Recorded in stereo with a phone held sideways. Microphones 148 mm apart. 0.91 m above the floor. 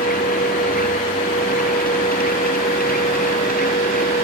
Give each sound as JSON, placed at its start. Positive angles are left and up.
{"t": 0.0, "sound": "a machine running", "side_deg": 80}